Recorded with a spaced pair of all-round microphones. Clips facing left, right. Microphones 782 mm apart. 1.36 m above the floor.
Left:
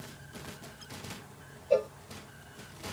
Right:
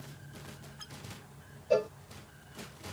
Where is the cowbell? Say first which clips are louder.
Left 1 dB; 50° right (ahead or behind).